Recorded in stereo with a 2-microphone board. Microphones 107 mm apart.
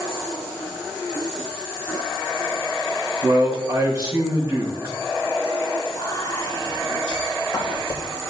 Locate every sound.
3.2 s a man speaking: 35° right (ahead or behind), 3.5 m
5.9 s whispering: 25° left (ahead or behind), 3 m